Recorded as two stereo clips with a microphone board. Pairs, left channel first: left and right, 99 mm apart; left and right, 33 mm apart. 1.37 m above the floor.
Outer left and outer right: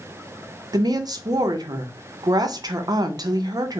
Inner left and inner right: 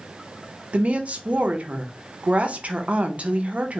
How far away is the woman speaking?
About 0.6 m.